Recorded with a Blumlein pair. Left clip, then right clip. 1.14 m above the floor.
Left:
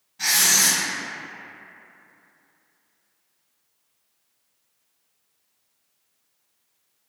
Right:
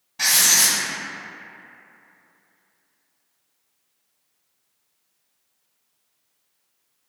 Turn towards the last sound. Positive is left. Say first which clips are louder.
# right 2 dB
turn(degrees=-60)